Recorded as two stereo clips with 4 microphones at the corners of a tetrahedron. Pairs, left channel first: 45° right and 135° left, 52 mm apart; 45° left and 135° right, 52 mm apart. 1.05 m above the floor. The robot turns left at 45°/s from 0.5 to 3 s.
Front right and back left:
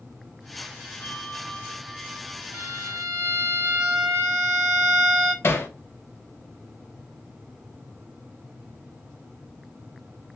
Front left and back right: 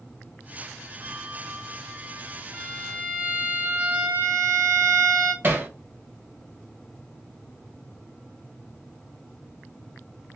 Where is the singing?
I don't hear singing.